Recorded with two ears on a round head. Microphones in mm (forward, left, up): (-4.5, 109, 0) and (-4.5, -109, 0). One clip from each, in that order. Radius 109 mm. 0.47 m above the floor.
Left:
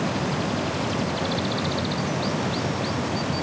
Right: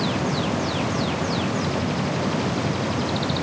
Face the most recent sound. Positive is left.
No sound to turn to.